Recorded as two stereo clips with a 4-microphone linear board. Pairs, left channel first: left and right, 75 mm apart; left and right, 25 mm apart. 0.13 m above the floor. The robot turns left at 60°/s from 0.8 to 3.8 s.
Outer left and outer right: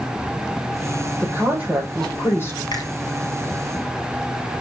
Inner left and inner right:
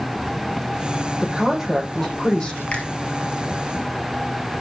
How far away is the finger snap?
About 3.5 m.